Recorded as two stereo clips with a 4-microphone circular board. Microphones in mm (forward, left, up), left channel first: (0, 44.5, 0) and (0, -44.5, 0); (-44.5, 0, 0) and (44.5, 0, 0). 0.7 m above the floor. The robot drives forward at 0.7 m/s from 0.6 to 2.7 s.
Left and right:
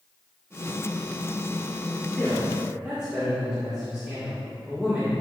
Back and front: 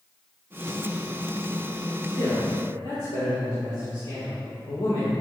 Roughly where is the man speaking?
Behind.